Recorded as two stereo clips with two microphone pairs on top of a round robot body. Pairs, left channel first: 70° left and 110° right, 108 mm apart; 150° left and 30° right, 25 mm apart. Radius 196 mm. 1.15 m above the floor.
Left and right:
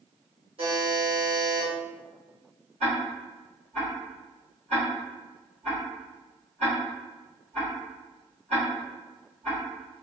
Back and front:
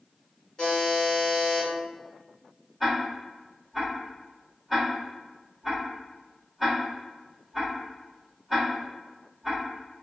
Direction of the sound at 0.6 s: 145° right.